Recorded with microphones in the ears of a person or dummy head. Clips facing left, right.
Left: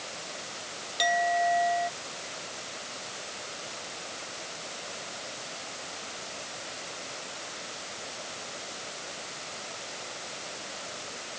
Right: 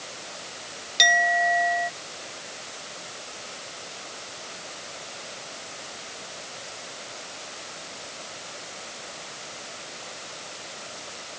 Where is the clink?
40° right (ahead or behind).